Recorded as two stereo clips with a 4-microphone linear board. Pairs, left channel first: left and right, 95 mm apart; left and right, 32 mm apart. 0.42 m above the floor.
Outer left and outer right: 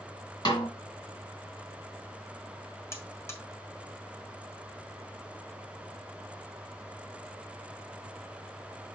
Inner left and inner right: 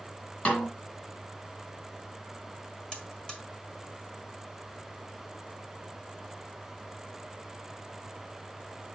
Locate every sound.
0.5 s a snare drum: 40° left (ahead or behind), 2.5 m
2.9 s a buzzer: 25° left (ahead or behind), 1.5 m